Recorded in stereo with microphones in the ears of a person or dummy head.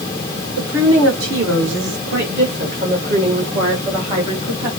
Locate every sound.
0.6 s a woman speaking: 75° right (ahead or behind), 1.9 m; by 4.7 s 30° right (ahead or behind), 3 m